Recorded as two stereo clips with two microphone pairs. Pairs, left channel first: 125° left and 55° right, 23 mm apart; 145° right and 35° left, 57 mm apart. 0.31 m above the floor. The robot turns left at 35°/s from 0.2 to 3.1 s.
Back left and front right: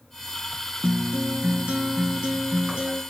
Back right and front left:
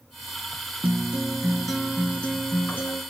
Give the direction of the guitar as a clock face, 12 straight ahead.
1 o'clock.